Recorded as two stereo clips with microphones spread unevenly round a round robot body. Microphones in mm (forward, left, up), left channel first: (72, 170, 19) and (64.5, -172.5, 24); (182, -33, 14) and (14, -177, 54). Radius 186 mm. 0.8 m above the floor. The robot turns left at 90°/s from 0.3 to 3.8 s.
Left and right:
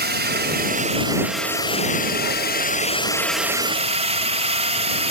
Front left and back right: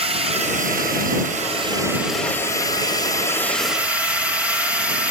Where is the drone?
85° right; by 5.1 s 40° right.